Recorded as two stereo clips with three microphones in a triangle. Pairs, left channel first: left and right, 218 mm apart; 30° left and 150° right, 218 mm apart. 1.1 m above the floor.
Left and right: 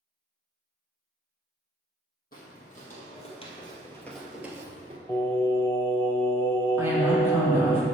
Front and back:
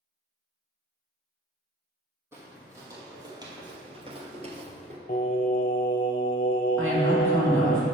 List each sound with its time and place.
2.3 s footsteps: 135° left, 2.5 m; by 5.0 s 125° right, 1.3 m
5.1 s singing: 20° left, 1.0 m
6.8 s a woman speaking: 170° right, 2 m